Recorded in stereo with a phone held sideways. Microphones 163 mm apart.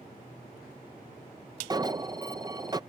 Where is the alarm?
25° right (ahead or behind).